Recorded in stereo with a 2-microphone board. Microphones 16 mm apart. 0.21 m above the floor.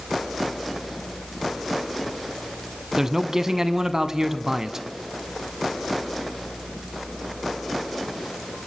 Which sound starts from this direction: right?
A man speaking, at 3.0 s.